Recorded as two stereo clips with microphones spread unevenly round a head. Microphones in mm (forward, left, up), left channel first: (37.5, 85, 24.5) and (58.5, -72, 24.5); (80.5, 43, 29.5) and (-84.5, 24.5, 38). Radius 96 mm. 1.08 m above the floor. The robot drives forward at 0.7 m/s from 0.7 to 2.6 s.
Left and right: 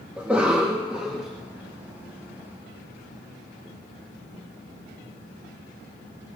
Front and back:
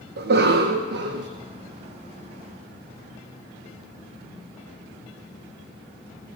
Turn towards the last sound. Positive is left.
turn(degrees=-175)